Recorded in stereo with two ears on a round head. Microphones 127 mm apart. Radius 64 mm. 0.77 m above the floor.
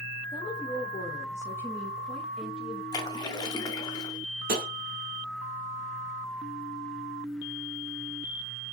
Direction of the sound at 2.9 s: 30° left (ahead or behind).